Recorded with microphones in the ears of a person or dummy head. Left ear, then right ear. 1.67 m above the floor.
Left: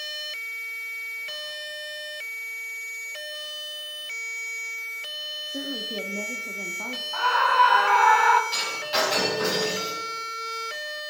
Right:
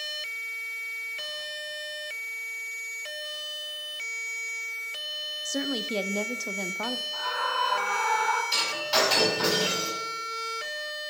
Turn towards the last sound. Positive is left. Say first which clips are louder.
# right 1 dB
turn(degrees=-25)  # may be behind; listen again after turning